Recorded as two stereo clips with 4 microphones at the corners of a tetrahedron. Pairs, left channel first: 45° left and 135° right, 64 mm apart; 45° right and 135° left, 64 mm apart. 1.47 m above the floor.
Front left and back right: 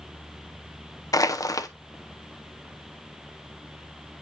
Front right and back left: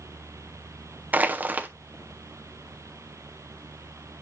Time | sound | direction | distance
1.1 | crushing | 70° left | 0.7 m